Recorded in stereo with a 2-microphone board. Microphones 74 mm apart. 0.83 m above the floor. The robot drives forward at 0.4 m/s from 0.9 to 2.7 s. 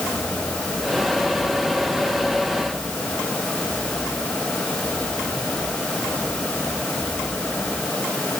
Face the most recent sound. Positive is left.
No sound to turn to.